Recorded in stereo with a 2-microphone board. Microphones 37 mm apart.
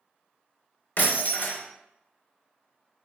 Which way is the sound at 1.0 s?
45° left (ahead or behind).